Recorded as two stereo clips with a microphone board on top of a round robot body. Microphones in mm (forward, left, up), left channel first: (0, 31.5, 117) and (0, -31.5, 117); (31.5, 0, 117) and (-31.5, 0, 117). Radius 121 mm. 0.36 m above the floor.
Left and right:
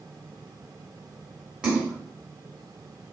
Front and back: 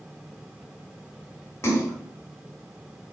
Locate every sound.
1.6 s a splash: 25° right, 1.7 m